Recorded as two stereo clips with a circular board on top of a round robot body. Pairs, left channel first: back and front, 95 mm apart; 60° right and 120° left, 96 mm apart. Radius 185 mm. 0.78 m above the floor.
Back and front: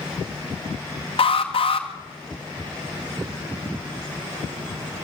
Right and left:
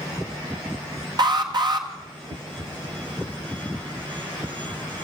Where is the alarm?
160° left, 2.5 m.